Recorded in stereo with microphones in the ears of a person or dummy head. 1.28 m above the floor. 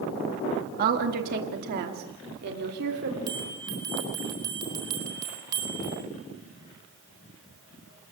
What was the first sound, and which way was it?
A woman speaking, 45° right (ahead or behind).